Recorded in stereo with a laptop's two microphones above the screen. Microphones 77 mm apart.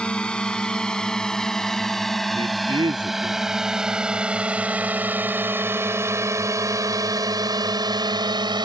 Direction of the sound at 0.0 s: 15° left (ahead or behind).